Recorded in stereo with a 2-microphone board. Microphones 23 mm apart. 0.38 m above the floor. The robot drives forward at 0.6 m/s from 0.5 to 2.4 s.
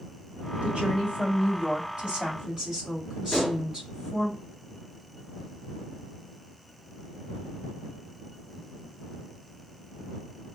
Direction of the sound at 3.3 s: 15° left (ahead or behind).